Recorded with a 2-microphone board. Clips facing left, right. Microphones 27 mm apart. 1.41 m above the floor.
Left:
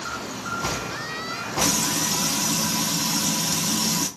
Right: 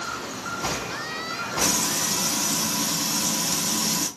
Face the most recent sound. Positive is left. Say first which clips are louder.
# left 2 dB
turn(degrees=25)  # may be behind; listen again after turning